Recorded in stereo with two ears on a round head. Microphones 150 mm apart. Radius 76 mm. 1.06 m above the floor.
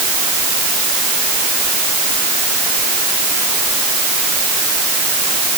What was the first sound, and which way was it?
Only background noise.